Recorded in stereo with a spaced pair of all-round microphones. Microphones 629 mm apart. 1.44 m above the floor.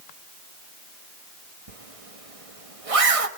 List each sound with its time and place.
1.7 s a zipper: 60° right (ahead or behind), 1.4 m